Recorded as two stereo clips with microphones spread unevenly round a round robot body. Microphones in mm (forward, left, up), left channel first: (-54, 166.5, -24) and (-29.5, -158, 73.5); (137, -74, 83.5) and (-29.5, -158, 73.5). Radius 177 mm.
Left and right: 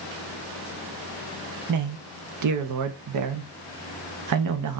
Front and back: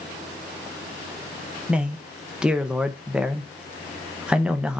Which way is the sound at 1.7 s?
75° right.